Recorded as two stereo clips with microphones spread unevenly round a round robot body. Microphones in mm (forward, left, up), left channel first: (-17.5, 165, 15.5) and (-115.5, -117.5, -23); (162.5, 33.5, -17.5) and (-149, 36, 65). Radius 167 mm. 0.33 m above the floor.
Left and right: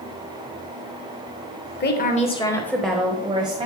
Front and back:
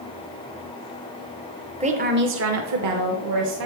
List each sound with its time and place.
1.8 s a woman speaking: 100° left, 1.1 m; by 3.7 s 175° right, 1.7 m